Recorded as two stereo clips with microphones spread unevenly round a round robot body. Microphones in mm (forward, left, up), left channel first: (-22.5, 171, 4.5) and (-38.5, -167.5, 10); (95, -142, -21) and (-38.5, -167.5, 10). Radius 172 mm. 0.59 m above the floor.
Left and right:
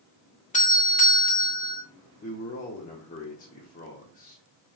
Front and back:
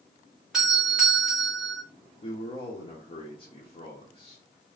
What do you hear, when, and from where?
0.5 s a doorbell: 75° left, 1.0 m
2.2 s a man speaking: 25° left, 0.9 m